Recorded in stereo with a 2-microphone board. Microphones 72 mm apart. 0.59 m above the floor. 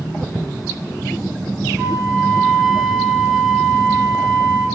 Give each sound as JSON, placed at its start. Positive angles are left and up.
{"t": 1.8, "sound": "a flute", "side_deg": -10, "distance_m": 1.1}